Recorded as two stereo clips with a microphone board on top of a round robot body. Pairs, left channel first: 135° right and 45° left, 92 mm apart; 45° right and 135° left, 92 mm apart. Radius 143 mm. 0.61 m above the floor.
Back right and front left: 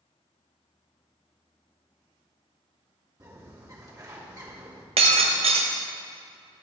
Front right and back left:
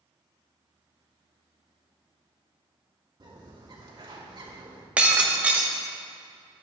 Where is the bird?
95° left, 2.5 m.